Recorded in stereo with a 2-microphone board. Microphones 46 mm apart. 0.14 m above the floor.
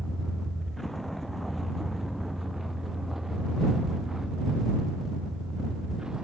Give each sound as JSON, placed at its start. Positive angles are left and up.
{"t": 0.0, "sound": "a vehicle", "side_deg": 10}